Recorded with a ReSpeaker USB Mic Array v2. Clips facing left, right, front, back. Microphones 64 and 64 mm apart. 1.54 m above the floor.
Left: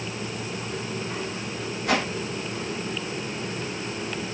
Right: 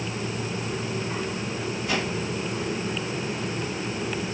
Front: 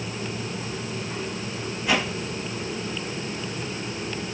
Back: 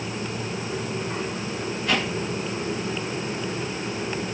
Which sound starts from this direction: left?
A whoosh, at 1.9 s.